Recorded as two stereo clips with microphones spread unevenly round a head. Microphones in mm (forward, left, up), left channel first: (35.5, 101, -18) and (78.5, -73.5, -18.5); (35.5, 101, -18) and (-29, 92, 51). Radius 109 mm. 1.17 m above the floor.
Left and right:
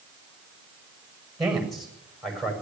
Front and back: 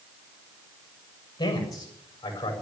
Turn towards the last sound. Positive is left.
turn(degrees=20)